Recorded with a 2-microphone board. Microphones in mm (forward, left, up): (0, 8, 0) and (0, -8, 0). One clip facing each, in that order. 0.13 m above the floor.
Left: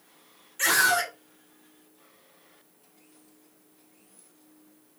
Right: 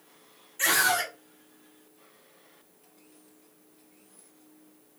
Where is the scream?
20° left (ahead or behind), 1.1 m.